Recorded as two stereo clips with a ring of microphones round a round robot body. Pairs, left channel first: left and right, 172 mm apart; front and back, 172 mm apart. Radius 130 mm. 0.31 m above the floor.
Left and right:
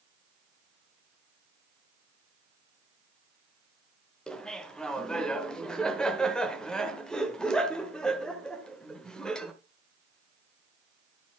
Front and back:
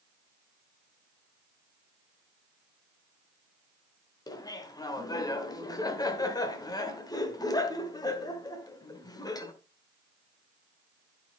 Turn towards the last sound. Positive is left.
turn(degrees=10)